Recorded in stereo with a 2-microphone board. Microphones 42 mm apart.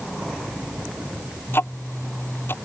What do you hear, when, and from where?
1.5 s ticking: 70° left (ahead or behind)